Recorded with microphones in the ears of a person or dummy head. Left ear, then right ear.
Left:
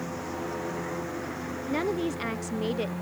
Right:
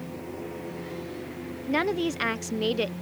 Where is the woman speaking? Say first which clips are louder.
Right 3 dB; 30° right (ahead or behind).